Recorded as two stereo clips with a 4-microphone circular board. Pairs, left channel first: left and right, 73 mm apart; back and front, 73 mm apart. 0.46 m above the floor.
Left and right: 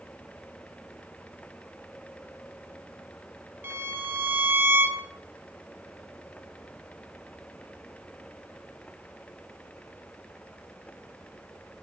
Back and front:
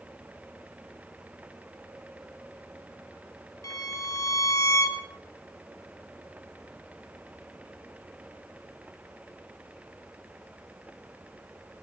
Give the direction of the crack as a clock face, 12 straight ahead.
I don't hear a crack.